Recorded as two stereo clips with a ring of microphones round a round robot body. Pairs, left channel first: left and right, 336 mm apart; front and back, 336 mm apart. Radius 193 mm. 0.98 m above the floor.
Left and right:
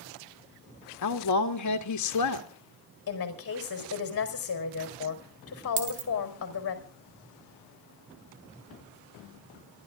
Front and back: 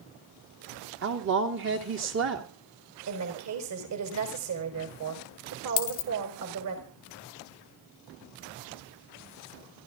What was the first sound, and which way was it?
A woman speaking, 125° left.